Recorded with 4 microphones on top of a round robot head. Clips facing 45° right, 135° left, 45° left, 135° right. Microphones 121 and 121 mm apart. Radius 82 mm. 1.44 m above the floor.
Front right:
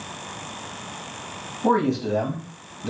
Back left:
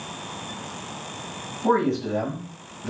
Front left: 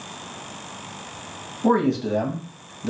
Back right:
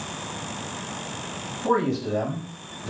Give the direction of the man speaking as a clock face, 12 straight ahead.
11 o'clock.